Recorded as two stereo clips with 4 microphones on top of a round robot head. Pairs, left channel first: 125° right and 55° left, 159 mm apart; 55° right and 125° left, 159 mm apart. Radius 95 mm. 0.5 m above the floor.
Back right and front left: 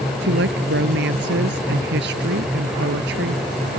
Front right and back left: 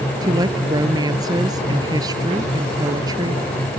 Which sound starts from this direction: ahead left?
A woman speaking, at 0.2 s.